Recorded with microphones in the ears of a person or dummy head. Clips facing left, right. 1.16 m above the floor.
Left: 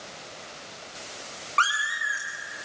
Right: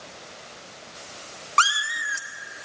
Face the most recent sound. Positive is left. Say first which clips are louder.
# right 3 dB
turn(degrees=-55)  # may be behind; listen again after turning